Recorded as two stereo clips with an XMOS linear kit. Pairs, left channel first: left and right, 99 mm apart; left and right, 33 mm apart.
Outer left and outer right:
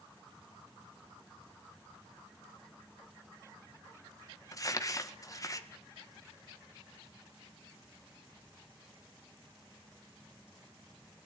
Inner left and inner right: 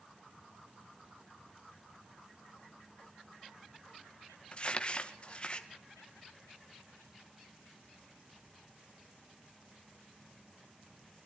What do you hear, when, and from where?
4.5 s crumpling: 35° left (ahead or behind), 2.0 m